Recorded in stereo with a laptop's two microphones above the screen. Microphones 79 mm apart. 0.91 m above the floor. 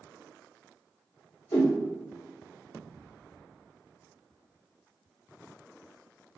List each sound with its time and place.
1.5 s a whoosh: 80° left, 0.9 m